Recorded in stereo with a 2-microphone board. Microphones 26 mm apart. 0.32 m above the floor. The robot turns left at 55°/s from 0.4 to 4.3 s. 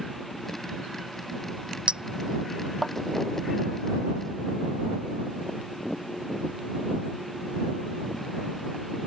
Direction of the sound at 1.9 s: 40° right (ahead or behind).